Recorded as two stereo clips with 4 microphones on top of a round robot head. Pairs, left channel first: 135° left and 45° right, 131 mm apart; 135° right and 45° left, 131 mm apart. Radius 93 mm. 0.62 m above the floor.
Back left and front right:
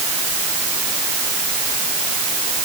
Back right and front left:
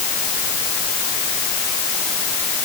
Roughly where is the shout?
No shout in this recording.